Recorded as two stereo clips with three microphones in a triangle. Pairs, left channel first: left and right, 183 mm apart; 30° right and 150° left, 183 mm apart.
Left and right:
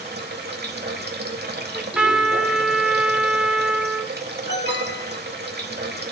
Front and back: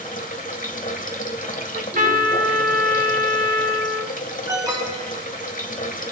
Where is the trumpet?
175° right, 1.2 m.